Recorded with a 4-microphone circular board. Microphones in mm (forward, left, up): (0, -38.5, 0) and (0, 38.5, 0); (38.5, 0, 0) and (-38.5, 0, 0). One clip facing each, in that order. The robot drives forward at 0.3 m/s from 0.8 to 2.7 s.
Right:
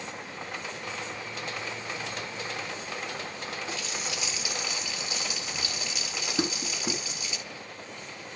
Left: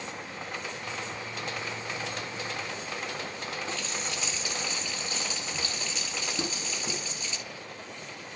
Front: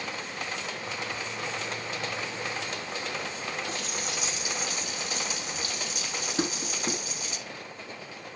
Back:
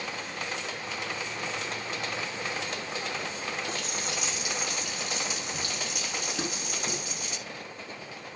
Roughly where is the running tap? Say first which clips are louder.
Even, even; behind.